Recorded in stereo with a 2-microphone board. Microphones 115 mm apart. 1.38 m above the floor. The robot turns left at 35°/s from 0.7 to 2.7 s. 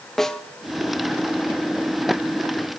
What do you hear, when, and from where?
0.2 s a snare drum: 5° left (ahead or behind), 0.8 m